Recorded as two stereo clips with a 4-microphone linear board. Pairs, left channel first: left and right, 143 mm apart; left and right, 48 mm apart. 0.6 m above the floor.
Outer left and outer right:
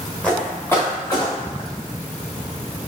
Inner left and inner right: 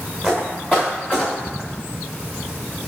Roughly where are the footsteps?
Centre.